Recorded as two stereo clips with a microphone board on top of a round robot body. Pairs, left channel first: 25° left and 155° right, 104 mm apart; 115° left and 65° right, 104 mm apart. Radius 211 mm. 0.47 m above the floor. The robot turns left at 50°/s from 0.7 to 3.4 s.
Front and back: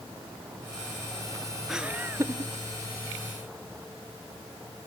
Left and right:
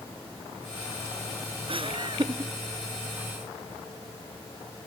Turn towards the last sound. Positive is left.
turn(degrees=-160)